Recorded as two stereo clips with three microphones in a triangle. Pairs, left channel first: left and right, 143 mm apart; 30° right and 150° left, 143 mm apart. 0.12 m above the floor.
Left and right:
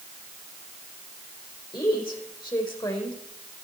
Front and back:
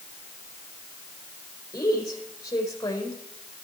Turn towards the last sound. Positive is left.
turn(degrees=35)